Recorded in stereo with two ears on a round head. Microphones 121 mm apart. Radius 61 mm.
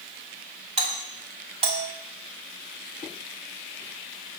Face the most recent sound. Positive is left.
turn(degrees=-45)  # may be behind; listen again after turning